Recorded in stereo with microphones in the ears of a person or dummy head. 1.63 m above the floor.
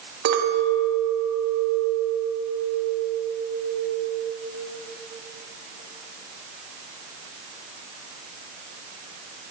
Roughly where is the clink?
Right.